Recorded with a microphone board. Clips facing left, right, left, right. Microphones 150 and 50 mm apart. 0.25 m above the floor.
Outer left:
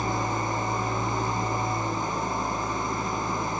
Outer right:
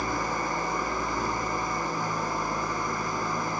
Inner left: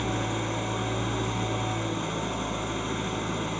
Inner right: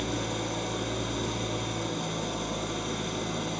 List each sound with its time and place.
0.0 s an engine running: 20° left (ahead or behind), 1.5 m